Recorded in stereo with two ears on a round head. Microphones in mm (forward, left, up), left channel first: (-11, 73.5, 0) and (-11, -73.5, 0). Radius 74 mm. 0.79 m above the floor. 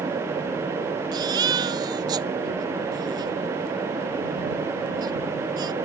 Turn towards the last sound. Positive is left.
turn(degrees=-25)  # may be behind; listen again after turning